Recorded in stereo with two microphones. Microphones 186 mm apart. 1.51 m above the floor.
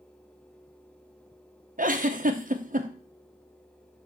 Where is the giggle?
50° right (ahead or behind), 1.1 m.